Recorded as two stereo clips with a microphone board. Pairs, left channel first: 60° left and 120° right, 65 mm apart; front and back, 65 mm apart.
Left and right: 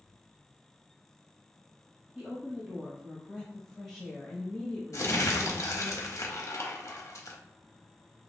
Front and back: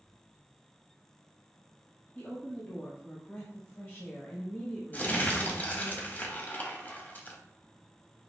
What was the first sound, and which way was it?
A woman speaking, 35° right.